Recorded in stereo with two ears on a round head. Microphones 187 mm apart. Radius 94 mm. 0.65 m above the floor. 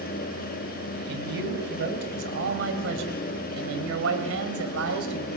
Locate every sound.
1.1 s a man speaking: 55° right (ahead or behind), 4 m; by 5.3 s 75° right (ahead or behind), 3.5 m